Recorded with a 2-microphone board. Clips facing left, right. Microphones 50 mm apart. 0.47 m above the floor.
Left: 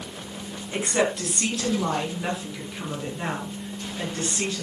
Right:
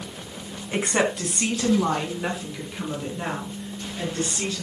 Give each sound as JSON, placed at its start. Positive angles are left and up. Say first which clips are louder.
{"t": 0.7, "sound": "a woman speaking", "louder": "right 1 dB", "side_deg": -30, "distance_m": 4.0}